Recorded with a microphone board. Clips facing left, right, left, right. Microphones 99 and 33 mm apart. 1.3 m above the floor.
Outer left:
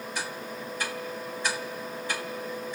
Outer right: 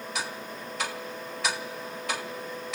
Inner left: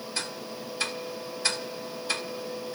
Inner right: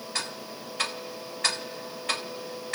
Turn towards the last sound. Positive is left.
turn(degrees=-85)